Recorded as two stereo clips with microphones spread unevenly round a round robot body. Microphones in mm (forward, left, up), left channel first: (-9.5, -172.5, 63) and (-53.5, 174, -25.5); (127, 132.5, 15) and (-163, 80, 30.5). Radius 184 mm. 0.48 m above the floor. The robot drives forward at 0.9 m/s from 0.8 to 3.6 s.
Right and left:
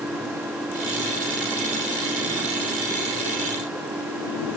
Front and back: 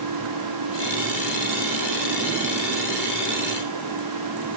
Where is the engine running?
175° right.